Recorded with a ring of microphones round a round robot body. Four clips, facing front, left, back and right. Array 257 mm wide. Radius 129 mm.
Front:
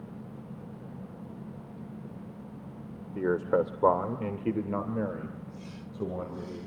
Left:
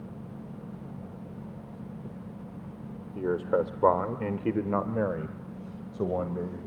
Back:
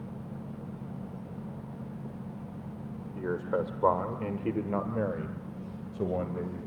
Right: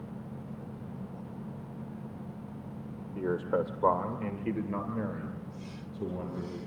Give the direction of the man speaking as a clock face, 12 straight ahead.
11 o'clock.